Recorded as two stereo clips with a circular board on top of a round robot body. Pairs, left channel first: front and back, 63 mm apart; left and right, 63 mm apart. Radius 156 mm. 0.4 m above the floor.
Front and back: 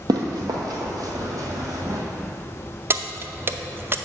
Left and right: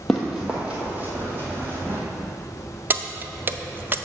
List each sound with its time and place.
0.1 s running footsteps: 175° left, 0.6 m; by 2.0 s 140° right, 1.4 m
2.9 s keys jangling: 140° right, 0.6 m